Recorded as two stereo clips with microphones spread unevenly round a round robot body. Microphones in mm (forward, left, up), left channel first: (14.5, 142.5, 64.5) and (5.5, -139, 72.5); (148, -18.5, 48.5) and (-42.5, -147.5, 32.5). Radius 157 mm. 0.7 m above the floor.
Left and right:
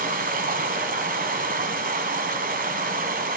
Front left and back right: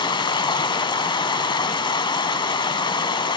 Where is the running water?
35° right, 1.4 m.